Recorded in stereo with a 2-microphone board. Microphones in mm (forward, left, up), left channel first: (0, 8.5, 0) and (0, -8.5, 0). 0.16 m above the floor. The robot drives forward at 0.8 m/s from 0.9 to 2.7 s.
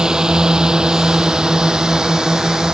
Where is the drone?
45° right (ahead or behind).